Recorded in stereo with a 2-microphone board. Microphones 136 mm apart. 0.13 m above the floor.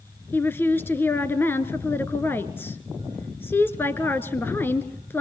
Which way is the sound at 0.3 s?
15° left (ahead or behind).